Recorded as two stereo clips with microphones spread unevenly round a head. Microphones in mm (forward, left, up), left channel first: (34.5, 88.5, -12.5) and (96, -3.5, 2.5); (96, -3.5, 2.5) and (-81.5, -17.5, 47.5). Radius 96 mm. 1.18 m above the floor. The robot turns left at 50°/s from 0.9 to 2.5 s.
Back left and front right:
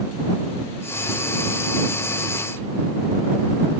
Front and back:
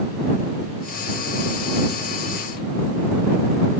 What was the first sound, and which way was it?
Only background noise.